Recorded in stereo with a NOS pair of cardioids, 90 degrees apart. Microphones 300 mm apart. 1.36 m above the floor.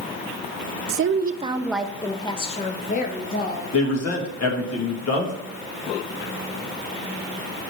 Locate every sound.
0.9 s a woman speaking: 50° right, 0.5 m; by 3.6 s 35° left, 1.5 m
3.7 s a man speaking: 55° left, 2.5 m